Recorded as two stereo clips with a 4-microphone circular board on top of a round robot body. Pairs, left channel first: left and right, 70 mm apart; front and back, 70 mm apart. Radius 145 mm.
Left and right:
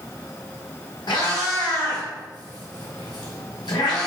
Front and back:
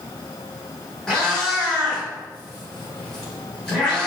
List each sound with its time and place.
1.1 s a cat meowing: 80° left, 1.4 m